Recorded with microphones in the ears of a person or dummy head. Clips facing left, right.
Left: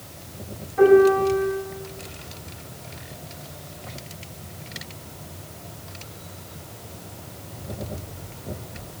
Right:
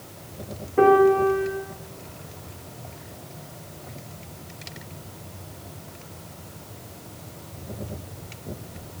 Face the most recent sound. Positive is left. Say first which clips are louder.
# left 2 dB
turn(degrees=-55)  # may be behind; listen again after turning